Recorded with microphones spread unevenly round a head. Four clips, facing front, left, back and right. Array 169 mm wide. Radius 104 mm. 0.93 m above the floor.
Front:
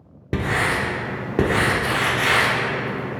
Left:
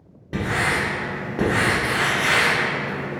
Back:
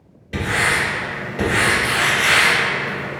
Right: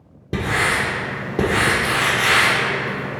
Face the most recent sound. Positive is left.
turn(degrees=-40)